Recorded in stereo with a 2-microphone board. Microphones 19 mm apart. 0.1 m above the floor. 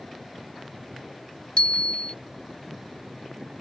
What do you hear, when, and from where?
1.6 s a bicycle bell: 65° left (ahead or behind)